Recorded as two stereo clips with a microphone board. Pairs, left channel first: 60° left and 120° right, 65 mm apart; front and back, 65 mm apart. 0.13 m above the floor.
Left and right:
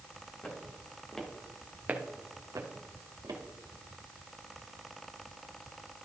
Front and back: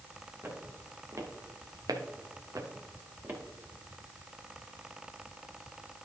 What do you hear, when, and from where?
0.4 s footsteps: 125° left, 3 m; by 3.4 s 120° right, 2.5 m